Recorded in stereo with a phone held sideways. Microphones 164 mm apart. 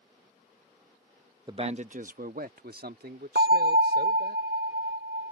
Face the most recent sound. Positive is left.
turn(degrees=-70)  # may be behind; listen again after turning